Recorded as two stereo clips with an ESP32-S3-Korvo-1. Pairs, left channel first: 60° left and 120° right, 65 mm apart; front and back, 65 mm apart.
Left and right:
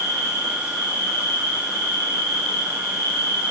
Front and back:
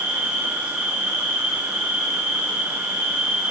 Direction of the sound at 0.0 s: 110° left.